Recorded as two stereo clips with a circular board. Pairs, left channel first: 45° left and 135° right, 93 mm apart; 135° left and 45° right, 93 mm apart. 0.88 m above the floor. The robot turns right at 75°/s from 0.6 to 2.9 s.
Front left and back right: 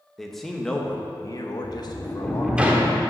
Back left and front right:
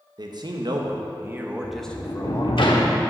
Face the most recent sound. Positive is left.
turn(degrees=170)